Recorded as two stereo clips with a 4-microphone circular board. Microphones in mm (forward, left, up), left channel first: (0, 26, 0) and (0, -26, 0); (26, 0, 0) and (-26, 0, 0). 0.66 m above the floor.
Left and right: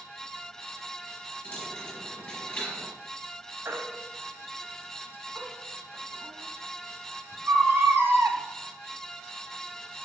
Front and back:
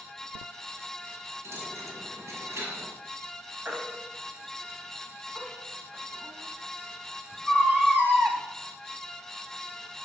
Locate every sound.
1.4 s a dropped coin: 160° left, 5 m
3.6 s a baby crying: 125° right, 1.6 m